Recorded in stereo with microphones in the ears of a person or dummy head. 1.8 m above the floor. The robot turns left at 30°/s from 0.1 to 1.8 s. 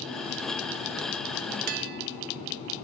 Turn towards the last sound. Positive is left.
turn(degrees=-55)  # may be behind; listen again after turning